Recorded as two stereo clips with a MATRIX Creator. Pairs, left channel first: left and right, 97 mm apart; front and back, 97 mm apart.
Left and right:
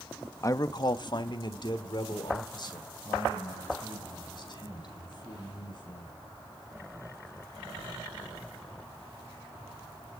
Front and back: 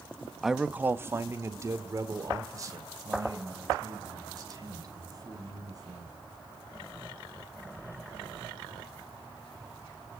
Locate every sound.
0.4 s a man speaking: 90° left, 0.7 m; by 6.1 s 130° left, 7 m